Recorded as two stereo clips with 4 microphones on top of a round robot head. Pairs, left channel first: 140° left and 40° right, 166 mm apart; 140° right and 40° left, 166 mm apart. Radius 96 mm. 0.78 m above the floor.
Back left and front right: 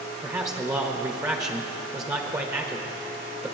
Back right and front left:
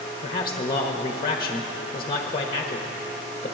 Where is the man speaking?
95° right, 1.1 m.